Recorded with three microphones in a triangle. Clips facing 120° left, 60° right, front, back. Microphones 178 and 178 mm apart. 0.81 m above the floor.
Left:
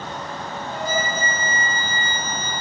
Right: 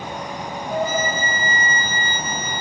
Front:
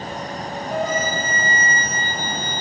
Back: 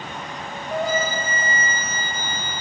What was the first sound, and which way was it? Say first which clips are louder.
A flute: right 4 dB, even; 90° right.